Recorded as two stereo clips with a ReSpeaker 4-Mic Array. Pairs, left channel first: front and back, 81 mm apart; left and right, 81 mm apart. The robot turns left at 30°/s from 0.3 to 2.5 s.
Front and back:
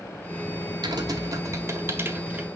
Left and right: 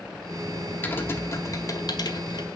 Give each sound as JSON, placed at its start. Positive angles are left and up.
{"t": 0.8, "sound": "typing on a keyboard", "azimuth_deg": 155, "distance_m": 1.8}